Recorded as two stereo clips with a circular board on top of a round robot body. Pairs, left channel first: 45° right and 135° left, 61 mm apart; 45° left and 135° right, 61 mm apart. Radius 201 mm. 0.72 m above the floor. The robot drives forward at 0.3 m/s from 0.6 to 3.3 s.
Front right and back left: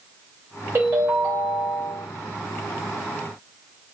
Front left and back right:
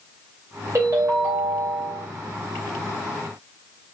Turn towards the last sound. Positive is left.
turn(degrees=-170)